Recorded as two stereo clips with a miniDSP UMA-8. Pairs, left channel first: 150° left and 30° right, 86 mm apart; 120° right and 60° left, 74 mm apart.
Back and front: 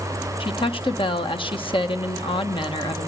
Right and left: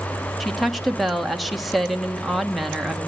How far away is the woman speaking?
About 1.4 m.